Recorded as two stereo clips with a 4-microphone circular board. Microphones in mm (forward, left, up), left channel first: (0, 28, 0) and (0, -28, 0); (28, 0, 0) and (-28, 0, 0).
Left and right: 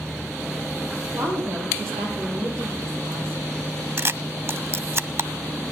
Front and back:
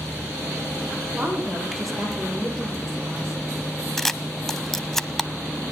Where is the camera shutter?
80° right, 0.8 m.